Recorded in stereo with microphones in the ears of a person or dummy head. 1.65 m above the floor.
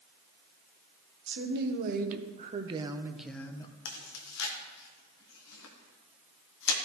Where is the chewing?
70° left (ahead or behind), 1.2 m.